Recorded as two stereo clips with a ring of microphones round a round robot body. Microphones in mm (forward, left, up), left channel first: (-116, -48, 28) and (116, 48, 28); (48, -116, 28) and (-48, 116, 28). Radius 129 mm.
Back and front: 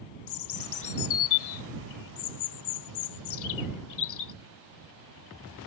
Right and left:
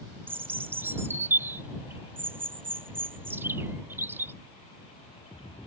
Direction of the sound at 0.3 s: 165° right.